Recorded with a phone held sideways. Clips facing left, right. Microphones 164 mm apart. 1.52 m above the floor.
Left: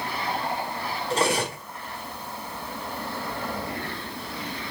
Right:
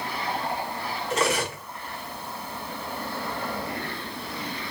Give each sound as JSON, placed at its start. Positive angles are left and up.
{"t": 1.1, "sound": "cutlery clinking", "side_deg": 30, "distance_m": 1.6}